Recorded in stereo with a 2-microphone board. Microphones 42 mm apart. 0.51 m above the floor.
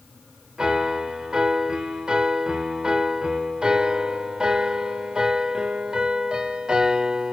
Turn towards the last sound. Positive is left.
turn(degrees=-20)  # may be behind; listen again after turning